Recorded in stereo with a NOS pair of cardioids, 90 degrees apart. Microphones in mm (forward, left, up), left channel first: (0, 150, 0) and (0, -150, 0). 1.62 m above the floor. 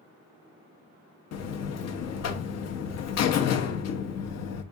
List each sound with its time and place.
1.3 s a buzzer: 65° left, 0.6 m